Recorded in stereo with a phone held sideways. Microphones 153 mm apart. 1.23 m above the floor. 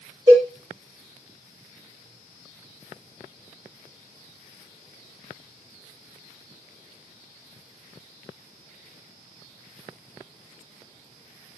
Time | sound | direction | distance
0.3 | a cowbell | 30° right (ahead or behind) | 1.3 m